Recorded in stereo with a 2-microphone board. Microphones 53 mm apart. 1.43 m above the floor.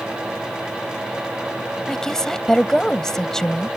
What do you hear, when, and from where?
1.9 s a woman speaking: 10° left (ahead or behind)